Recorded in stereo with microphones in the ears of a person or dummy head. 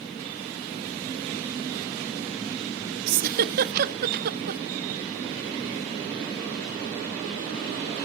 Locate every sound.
3.1 s a giggle: 50° right (ahead or behind), 0.6 m